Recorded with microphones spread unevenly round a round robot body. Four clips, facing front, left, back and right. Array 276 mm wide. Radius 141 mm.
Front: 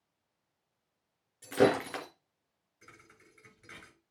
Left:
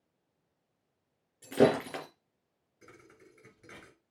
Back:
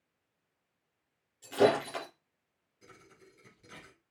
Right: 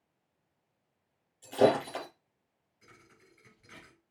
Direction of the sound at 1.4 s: 80° left.